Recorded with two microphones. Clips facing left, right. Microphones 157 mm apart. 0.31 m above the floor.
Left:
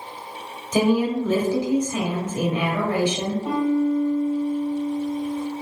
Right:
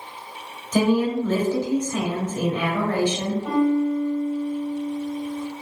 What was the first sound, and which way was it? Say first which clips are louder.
A woman speaking: even; 10° left (ahead or behind).